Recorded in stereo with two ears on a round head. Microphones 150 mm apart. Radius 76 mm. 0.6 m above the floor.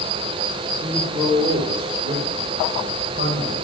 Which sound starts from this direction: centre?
A man speaking, at 0.8 s.